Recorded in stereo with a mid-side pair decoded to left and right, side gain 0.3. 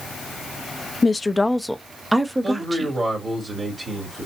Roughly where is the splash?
No splash in this recording.